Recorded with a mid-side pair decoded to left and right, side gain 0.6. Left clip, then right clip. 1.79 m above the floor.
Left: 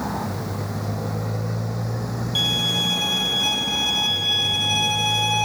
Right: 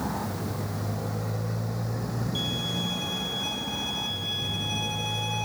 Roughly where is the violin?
Ahead left.